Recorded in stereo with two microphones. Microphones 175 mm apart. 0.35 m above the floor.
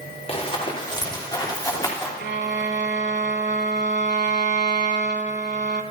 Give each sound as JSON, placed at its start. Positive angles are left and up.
{"t": 0.3, "sound": "running footsteps", "side_deg": 30, "distance_m": 3.5}
{"t": 2.2, "sound": "a violin", "side_deg": -85, "distance_m": 0.6}